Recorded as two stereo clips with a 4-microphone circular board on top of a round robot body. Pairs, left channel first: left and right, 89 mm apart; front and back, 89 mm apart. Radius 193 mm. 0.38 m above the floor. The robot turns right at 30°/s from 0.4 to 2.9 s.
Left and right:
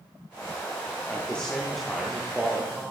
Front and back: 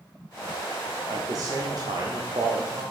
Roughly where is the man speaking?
Behind left.